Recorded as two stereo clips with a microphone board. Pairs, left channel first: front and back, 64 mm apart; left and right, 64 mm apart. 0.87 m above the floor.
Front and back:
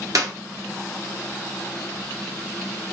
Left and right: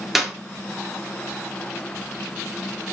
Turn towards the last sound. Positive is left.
turn(degrees=-175)